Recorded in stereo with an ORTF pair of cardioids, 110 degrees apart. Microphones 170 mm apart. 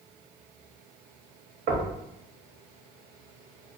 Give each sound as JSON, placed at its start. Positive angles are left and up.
{"t": 1.7, "sound": "knocking", "azimuth_deg": -65, "distance_m": 0.9}